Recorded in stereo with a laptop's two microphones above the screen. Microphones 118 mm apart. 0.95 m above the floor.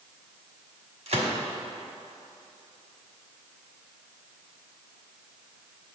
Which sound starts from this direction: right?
A gunshot, at 1.1 s.